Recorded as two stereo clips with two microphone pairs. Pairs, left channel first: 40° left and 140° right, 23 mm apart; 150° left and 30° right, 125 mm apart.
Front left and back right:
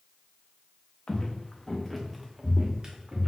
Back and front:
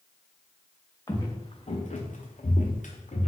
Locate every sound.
1.1 s footsteps: 85° left, 0.8 m; by 3.3 s 175° left, 0.9 m